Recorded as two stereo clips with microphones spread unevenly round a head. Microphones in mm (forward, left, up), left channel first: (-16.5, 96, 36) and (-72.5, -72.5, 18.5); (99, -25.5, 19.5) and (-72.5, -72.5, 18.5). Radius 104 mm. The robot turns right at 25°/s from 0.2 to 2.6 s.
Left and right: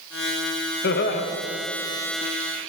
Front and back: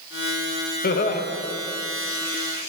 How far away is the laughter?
About 1.0 m.